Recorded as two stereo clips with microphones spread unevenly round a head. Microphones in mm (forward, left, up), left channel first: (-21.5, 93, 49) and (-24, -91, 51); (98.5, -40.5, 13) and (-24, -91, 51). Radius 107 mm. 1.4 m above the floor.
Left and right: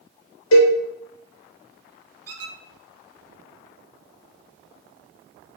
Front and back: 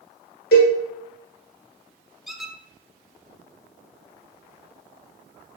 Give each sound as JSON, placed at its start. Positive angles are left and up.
{"t": 0.5, "sound": "a cowbell", "azimuth_deg": 60, "distance_m": 0.9}
{"t": 2.3, "sound": "a squeak", "azimuth_deg": -80, "distance_m": 0.5}